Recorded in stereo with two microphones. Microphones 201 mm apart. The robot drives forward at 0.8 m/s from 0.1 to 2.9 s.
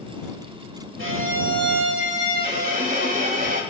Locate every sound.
1.0 s a violin: 85° right, 1.6 m; by 3.6 s 45° right (ahead or behind), 2.5 m